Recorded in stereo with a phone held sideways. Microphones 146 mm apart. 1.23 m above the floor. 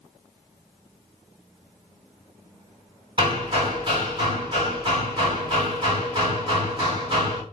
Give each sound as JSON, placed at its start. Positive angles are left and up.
{"t": 3.2, "sound": "hammering", "side_deg": -35, "distance_m": 1.8}